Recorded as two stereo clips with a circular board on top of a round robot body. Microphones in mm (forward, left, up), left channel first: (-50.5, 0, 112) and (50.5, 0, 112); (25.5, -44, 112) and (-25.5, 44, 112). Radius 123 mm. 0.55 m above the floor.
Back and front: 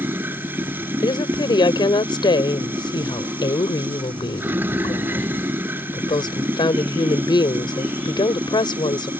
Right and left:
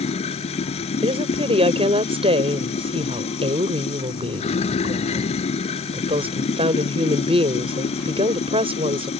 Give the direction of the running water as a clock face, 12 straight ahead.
2 o'clock.